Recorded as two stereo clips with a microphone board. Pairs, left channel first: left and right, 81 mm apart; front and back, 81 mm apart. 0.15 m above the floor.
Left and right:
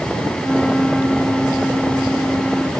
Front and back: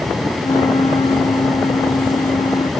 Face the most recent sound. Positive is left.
turn(degrees=0)